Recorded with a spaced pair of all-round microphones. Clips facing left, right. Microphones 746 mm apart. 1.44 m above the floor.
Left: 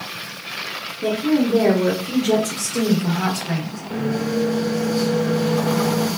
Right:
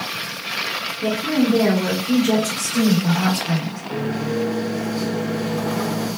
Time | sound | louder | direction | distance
1.0 | a woman speaking | left 1 dB | 25° right (ahead or behind) | 2.5 m
3.9 | a microwave | left 2 dB | 25° left (ahead or behind) | 3 m